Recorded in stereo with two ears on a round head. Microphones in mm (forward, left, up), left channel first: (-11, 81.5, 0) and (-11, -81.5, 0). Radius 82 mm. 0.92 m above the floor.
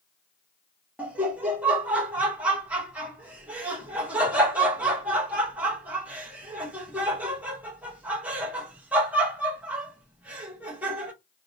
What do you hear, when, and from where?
1.0 s laughter: 10° right (ahead or behind), 0.6 m